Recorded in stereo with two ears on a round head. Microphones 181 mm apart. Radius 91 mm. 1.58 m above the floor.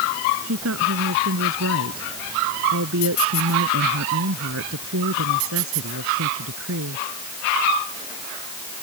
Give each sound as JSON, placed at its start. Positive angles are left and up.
{"t": 0.4, "sound": "a woman speaking", "side_deg": -80}